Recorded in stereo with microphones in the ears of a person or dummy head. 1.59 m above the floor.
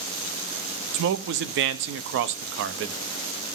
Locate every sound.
0.9 s a man speaking: 60° right (ahead or behind), 0.6 m